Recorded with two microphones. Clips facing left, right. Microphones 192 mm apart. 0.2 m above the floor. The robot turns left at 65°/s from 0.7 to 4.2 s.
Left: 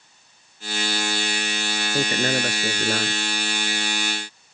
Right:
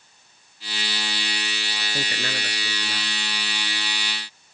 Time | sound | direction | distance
1.9 | a man speaking | 155° left | ?